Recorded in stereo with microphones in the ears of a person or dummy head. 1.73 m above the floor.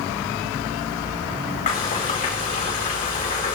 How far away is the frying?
About 4 m.